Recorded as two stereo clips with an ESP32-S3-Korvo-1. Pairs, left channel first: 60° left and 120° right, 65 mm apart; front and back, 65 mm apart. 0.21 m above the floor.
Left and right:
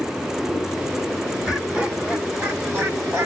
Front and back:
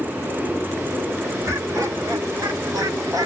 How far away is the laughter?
About 3.5 m.